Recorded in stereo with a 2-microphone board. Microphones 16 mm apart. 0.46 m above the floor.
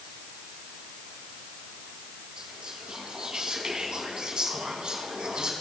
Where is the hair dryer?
No hair dryer in this recording.